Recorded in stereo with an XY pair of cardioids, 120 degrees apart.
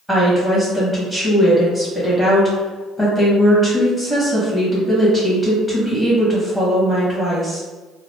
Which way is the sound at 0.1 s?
5° left.